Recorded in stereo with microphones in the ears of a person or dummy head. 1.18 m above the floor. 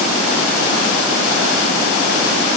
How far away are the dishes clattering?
No dishes clattering in this recording.